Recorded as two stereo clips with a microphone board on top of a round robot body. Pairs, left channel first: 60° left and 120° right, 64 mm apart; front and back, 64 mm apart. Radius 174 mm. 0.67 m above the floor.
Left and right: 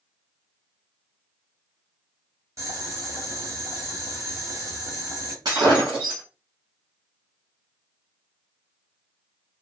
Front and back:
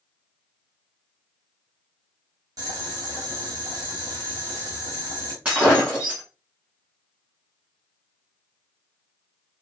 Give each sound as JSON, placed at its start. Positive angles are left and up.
{"t": 2.6, "sound": "boiling", "azimuth_deg": -160, "distance_m": 1.3}
{"t": 5.5, "sound": "breaking glass", "azimuth_deg": -110, "distance_m": 1.0}